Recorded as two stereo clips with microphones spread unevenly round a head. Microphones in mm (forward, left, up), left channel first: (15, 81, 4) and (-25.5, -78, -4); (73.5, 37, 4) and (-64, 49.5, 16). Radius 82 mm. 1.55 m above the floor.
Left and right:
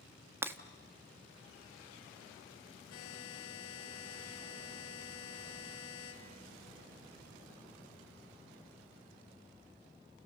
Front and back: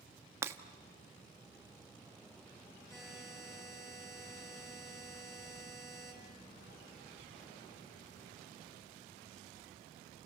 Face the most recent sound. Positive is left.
turn(degrees=65)